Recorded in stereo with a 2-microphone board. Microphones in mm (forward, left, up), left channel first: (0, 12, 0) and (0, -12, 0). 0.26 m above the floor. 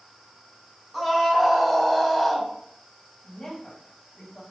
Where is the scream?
5° right (ahead or behind), 1.7 m; by 2.5 s 10° left (ahead or behind), 1.2 m.